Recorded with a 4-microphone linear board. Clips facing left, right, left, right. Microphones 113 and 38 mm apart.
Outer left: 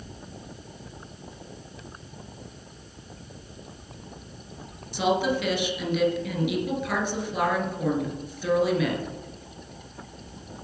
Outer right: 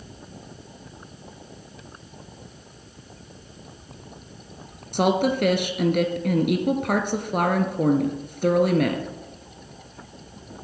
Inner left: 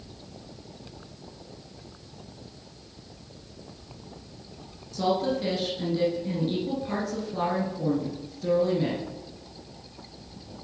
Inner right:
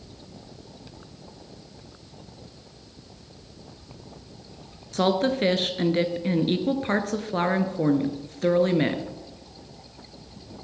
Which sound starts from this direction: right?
A woman speaking, at 4.9 s.